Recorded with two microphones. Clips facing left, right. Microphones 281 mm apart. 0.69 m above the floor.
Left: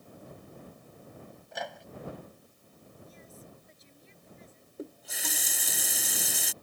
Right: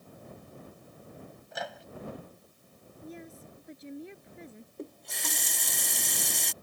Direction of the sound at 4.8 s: 5° left (ahead or behind).